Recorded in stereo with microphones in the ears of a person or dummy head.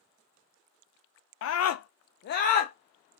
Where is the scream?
65° left (ahead or behind), 0.5 m; by 2.7 s 35° left (ahead or behind), 0.8 m.